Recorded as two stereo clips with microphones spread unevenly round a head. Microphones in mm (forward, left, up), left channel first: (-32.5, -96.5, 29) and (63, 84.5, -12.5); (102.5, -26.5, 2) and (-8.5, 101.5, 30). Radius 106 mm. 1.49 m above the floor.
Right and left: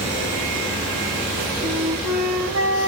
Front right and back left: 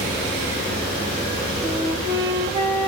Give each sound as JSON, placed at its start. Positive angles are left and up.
{"t": 1.6, "sound": "a flute", "azimuth_deg": 100, "distance_m": 1.0}